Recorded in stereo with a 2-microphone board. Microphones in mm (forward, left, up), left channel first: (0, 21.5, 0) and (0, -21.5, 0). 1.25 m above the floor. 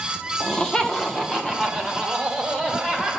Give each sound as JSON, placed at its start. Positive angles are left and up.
{"t": 0.4, "sound": "laughter", "side_deg": 20, "distance_m": 0.8}